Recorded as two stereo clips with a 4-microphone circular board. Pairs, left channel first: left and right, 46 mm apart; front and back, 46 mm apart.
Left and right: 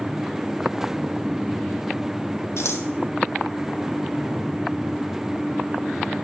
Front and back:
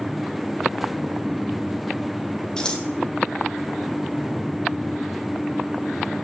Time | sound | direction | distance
2.6 | scissors | 75° left | 1.5 m